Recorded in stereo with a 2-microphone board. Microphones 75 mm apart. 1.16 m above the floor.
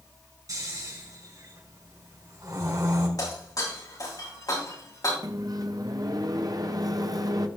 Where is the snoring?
50° right (ahead or behind), 4.5 m.